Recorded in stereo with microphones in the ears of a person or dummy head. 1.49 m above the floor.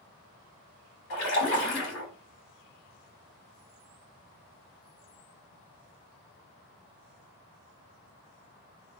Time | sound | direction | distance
1.1 | a splash | 60° left (ahead or behind) | 3 m